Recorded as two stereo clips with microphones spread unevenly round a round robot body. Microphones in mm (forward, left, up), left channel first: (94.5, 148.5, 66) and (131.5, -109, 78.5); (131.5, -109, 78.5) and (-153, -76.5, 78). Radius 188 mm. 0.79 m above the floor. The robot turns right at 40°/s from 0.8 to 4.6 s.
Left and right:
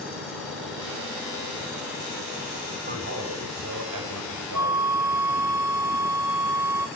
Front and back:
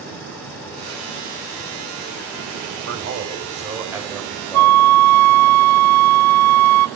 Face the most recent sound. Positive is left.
turn(degrees=-165)